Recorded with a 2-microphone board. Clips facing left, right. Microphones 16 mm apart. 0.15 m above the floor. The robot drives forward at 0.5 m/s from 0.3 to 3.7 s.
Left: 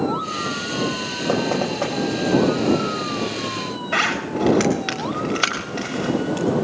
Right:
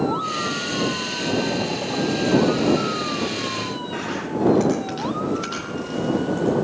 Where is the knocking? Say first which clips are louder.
Left 3 dB; 80° left, 7.5 m.